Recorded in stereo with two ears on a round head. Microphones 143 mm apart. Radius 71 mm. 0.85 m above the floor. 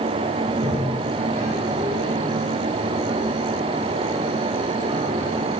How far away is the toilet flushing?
About 3.5 m.